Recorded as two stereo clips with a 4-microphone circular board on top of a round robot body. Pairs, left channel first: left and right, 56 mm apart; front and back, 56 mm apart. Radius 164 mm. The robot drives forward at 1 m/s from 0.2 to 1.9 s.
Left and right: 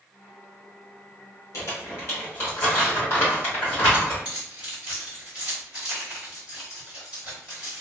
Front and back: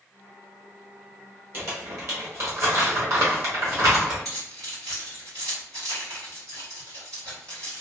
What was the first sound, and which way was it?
Crumpling, 130° left.